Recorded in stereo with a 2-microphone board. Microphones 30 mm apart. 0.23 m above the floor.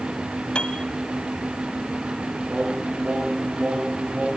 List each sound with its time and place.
0.6 s a piano: 30° left (ahead or behind), 1.2 m
2.5 s singing: 30° right (ahead or behind), 6.5 m